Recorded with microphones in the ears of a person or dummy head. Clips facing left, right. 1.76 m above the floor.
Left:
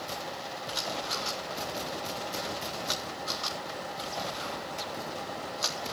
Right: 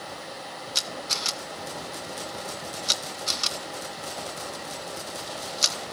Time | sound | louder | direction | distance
0.8 | a camera shutter | left 2 dB | 40° right (ahead or behind) | 1.3 m